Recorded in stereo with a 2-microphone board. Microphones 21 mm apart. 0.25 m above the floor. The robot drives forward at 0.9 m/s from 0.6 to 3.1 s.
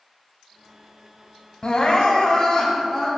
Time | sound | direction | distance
1.6 | crying | 45° left (ahead or behind) | 0.9 m